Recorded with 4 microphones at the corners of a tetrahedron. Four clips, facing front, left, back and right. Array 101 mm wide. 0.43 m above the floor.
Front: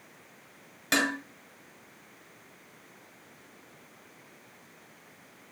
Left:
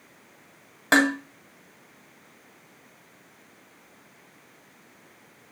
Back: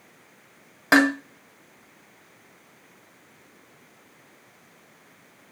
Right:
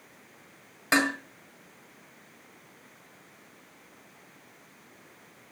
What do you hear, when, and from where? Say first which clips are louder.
0.9 s dishes clattering: left 5 dB, back 10 dB; 150° left, 1.8 m